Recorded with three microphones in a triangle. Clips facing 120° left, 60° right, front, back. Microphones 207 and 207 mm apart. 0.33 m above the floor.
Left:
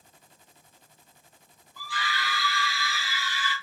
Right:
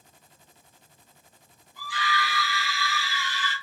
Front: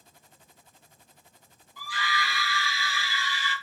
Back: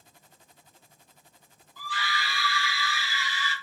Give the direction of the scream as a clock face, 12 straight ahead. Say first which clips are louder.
Right 4 dB, front 1 dB; 2 o'clock.